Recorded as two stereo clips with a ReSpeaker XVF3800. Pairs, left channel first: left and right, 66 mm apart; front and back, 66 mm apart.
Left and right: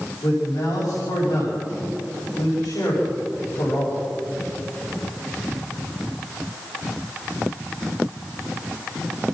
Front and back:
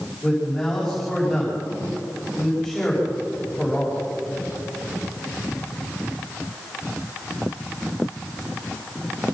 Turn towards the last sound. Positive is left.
turn(degrees=90)